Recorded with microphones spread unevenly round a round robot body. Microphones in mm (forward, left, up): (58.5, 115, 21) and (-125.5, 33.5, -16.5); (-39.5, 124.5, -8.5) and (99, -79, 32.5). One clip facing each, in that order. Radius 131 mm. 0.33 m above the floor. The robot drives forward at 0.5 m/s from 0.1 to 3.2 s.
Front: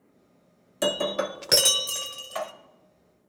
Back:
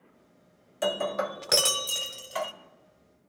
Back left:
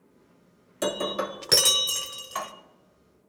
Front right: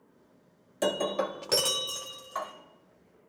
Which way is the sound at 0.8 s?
60° left.